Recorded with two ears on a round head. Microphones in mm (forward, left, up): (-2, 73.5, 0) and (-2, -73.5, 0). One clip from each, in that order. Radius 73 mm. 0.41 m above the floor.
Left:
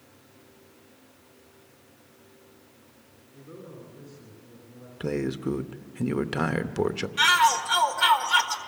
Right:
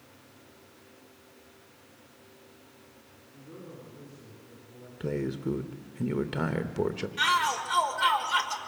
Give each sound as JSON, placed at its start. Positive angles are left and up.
{"t": 3.3, "sound": "a man speaking", "side_deg": 20, "distance_m": 5.5}
{"t": 5.0, "sound": "a man speaking", "side_deg": 25, "distance_m": 0.8}
{"t": 7.2, "sound": "a shout", "side_deg": 15, "distance_m": 1.5}